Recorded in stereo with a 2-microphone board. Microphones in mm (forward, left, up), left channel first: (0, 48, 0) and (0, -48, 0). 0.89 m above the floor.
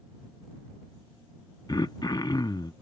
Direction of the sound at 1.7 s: 40° left (ahead or behind).